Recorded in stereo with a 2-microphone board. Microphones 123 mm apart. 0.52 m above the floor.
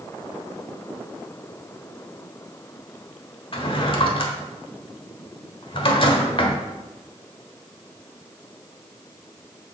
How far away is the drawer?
About 1.2 m.